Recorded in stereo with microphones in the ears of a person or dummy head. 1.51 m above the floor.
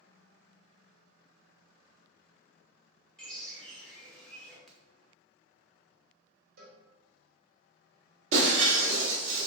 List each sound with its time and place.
3.2 s a bird: 5° left (ahead or behind), 0.9 m
4.7 s a crack: centre (ahead or behind), 0.6 m
6.6 s a cowbell: 55° right (ahead or behind), 1.6 m
8.3 s breaking glass: 45° right (ahead or behind), 1.5 m